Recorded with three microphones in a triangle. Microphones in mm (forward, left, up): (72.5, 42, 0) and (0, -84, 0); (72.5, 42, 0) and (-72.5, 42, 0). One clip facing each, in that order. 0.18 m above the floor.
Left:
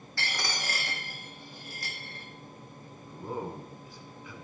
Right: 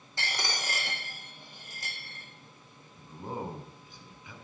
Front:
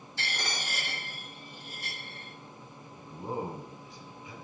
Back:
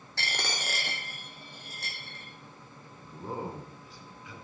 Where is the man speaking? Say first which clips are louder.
Left 1 dB, front 2 dB; 55° right, 1.3 m.